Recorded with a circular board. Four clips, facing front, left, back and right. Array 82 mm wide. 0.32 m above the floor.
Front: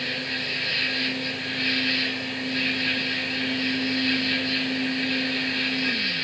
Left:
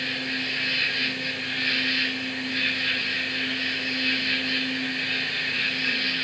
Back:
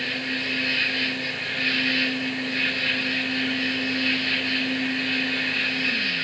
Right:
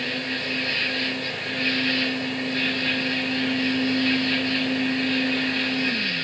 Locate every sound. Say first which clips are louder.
0.0 s an insect: right 2 dB, back 2 dB; 155° left, 3 m